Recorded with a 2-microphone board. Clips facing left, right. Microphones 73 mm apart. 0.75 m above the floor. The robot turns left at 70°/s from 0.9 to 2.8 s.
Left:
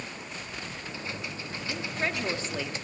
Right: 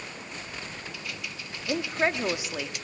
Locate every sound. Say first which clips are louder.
1.7 s a woman speaking: right 6 dB; 115° right, 1.7 m; by 2.9 s 165° left, 1.7 m